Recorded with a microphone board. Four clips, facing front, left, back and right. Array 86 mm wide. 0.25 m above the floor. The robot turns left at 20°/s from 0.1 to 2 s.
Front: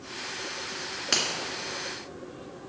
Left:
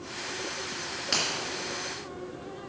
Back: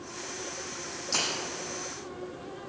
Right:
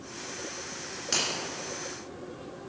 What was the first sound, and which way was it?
A finger snap, 10° left.